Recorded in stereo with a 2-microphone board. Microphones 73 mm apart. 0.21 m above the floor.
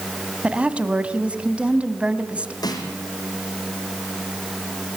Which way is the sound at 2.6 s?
60° left (ahead or behind).